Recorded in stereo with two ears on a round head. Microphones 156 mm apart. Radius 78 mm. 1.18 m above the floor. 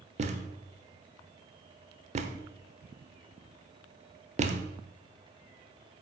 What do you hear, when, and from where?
0.2 s a thud: 40° right (ahead or behind), 1.0 m